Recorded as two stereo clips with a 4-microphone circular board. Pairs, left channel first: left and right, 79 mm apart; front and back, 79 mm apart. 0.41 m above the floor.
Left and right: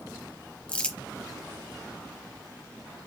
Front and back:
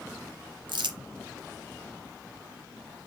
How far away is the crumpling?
About 0.9 m.